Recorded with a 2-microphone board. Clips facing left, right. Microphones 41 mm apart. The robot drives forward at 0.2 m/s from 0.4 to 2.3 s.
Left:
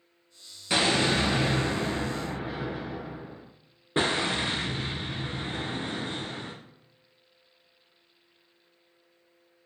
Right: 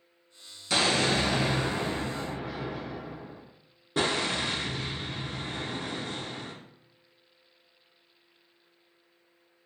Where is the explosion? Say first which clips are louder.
Left 1 dB; 25° left (ahead or behind), 0.7 m; by 6.5 s 30° left (ahead or behind), 0.6 m.